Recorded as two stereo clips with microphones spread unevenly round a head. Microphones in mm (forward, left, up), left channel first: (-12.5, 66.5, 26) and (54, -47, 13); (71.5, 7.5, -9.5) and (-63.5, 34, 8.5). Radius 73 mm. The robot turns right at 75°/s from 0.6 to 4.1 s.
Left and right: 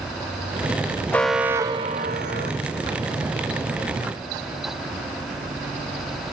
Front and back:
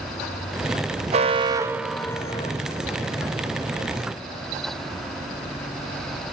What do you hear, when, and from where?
1.1 s an alarm: 165° right, 1.0 m; by 2.5 s 60° right, 1.0 m